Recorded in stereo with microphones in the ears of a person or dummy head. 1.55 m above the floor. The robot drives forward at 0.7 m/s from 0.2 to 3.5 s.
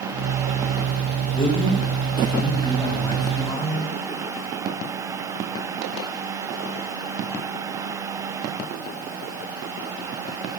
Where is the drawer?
No drawer in this recording.